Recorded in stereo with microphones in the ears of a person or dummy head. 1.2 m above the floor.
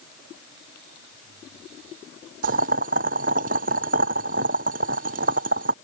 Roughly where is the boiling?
Right.